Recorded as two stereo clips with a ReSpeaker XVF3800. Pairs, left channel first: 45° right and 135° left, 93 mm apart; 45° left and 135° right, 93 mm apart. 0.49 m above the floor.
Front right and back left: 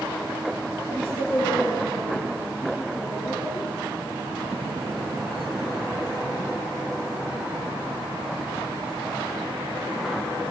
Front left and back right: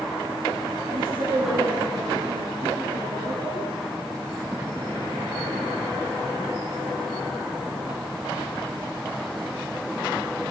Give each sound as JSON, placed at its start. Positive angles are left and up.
{"t": 0.9, "sound": "a woman speaking", "azimuth_deg": -70, "distance_m": 9.0}